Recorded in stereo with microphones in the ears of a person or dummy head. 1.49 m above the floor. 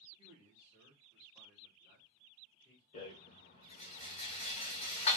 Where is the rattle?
30° left (ahead or behind), 1.7 m.